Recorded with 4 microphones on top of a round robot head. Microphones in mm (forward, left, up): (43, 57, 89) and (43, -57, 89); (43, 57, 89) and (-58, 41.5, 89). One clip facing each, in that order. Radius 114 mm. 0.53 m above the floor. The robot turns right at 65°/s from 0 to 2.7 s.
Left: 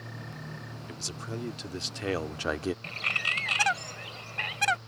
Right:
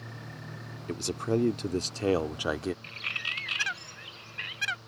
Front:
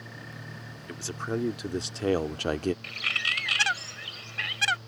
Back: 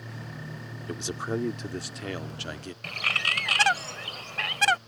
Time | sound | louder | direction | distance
0.9 | a man speaking | right 12 dB, back 1 dB | 115° right | ?
2.8 | a bird | left 5 dB, back 3 dB | 145° left | ?